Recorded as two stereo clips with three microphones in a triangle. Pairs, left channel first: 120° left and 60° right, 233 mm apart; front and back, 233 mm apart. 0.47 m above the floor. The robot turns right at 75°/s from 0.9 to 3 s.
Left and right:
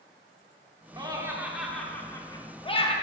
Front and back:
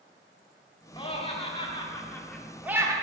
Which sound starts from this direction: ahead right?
Laughter, at 1.0 s.